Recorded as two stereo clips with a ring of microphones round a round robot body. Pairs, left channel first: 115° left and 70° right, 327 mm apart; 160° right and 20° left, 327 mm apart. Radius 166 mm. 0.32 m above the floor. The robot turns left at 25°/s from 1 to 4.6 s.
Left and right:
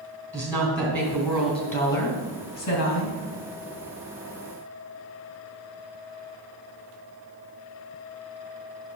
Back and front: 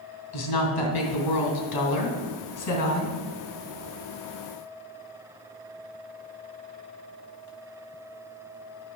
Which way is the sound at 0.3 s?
160° right.